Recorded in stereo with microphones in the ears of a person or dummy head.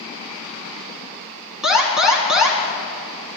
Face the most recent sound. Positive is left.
turn(degrees=0)  # may be behind; listen again after turning